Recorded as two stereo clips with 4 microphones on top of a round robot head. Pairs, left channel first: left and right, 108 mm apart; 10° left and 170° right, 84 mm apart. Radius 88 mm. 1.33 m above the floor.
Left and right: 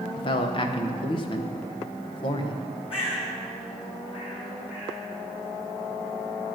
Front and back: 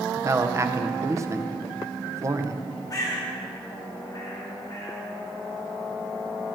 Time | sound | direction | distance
0.2 | a man speaking | 135° left | 1.0 m
2.9 | a bird | 55° left | 3.5 m